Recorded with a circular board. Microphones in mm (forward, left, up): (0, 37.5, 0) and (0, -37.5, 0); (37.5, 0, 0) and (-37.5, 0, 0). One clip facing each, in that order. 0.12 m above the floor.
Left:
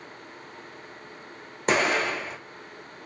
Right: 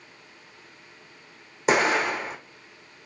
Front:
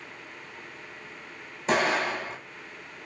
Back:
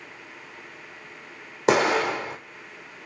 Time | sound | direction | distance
1.7 | an explosion | 175° right | 1.5 m